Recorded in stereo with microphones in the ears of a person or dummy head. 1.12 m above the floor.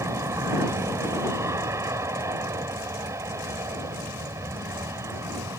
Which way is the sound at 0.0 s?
15° right (ahead or behind).